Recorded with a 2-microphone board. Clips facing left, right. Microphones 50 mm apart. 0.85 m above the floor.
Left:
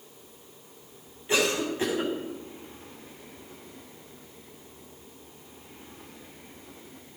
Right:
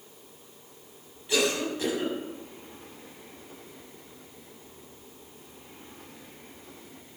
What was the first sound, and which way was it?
A cough, 30° left (ahead or behind).